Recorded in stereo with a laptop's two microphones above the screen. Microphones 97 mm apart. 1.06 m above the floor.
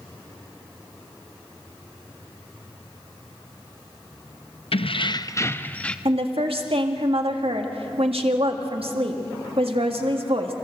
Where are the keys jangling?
75° left (ahead or behind), 0.5 m; by 6.0 s 10° left (ahead or behind), 1.0 m.